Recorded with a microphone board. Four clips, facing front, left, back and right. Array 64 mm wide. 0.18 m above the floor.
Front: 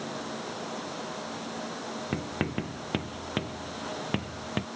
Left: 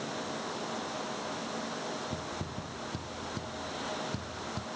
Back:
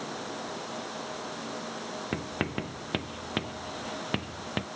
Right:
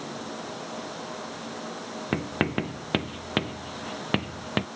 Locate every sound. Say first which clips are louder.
2.1 s writing: right 11 dB, front 1 dB; 95° right